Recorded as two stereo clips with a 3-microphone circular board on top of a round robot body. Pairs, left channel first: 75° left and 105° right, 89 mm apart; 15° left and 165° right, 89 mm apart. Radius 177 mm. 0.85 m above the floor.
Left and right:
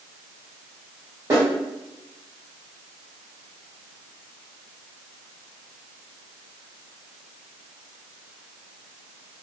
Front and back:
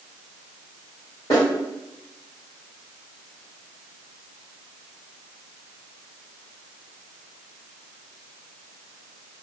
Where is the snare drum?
45° right, 1.5 m.